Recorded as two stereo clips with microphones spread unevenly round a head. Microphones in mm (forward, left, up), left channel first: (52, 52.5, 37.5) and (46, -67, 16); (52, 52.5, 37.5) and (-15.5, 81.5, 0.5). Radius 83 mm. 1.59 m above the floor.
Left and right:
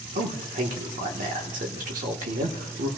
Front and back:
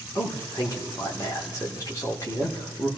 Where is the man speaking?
95° right, 2 m.